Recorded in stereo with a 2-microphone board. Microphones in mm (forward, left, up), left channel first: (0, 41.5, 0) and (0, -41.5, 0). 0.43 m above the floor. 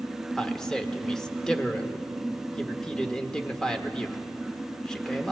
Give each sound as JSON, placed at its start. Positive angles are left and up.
{"t": 0.4, "sound": "a man speaking", "side_deg": 10, "distance_m": 0.8}